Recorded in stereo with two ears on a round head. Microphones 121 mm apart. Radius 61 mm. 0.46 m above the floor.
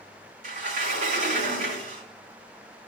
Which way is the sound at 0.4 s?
65° right (ahead or behind).